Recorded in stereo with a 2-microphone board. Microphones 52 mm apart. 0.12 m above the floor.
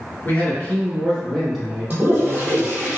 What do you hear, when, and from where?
0.2 s a man speaking: 40° left (ahead or behind), 1.5 m; by 2.9 s 35° right (ahead or behind), 1.6 m
1.9 s a toilet flushing: 35° right (ahead or behind), 1.0 m